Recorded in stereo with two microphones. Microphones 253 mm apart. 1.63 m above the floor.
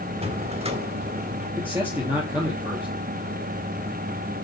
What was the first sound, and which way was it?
A drawer, 25° right (ahead or behind).